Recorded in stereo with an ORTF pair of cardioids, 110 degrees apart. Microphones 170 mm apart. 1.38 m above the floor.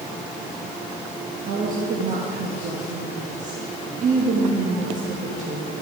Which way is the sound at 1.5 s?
50° right.